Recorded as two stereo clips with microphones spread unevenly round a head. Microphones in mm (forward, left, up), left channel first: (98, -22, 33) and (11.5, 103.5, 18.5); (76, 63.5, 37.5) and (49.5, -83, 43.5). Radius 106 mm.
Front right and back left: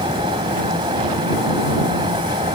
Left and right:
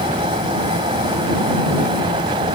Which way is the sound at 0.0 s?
165° right.